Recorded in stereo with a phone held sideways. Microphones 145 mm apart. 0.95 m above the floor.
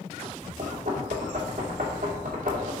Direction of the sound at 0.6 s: 70° right (ahead or behind).